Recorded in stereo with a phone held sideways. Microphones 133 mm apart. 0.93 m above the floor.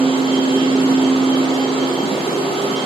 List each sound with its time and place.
0.0 s a machine running: 40° left (ahead or behind), 1.6 m